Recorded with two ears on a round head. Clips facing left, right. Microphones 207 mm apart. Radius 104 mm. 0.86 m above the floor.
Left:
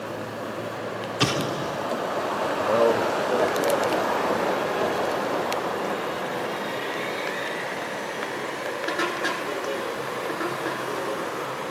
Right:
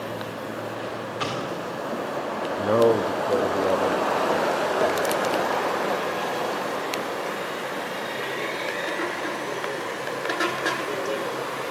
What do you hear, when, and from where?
1.2 s an explosion: 65° left (ahead or behind), 1.8 m
2.6 s a man speaking: 35° right (ahead or behind), 1.0 m